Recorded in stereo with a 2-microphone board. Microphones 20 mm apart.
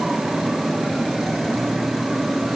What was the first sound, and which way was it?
Only background noise.